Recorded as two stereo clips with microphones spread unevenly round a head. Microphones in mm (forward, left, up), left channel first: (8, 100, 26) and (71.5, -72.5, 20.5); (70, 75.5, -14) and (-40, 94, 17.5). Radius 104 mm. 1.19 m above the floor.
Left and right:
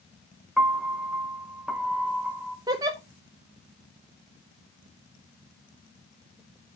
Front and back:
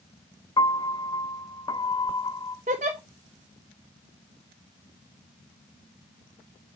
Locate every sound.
0.6 s a piano: 20° left, 0.7 m
2.7 s a giggle: 145° right, 0.7 m